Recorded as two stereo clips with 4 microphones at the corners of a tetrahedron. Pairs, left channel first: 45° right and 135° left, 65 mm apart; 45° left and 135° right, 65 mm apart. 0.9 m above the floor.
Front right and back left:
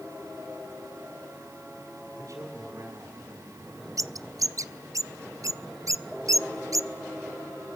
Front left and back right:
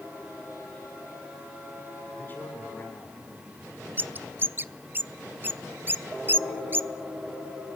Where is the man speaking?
105° left, 8 m; by 4.1 s 95° left, 7.5 m.